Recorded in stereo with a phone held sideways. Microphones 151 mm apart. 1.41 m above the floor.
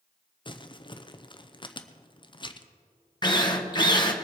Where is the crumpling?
35° left (ahead or behind), 0.6 m.